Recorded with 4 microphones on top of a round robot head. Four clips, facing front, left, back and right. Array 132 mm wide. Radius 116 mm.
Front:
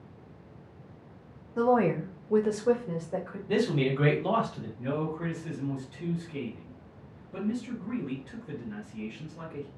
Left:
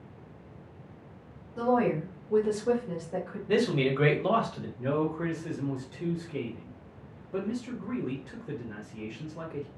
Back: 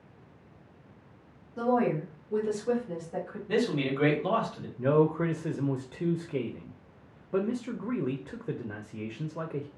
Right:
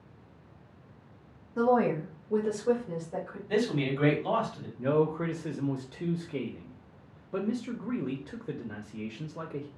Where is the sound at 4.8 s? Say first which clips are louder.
Right 2 dB, back 8 dB; 160° right, 0.5 m.